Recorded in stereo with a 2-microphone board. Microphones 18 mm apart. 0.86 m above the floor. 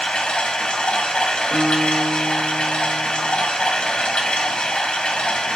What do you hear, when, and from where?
0.0 s running water: 75° left (ahead or behind), 0.9 m
1.5 s a guitar: 40° right (ahead or behind), 1.0 m